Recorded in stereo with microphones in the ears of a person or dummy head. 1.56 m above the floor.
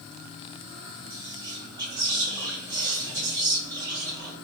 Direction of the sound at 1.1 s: 25° right (ahead or behind).